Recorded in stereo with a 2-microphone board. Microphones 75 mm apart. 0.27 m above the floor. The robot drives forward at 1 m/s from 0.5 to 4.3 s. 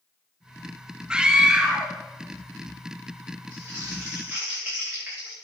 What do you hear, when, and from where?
1.1 s a scream: 10° right (ahead or behind), 1.0 m
3.5 s crumpling: 25° right (ahead or behind), 7 m; by 5.3 s 20° right (ahead or behind), 8 m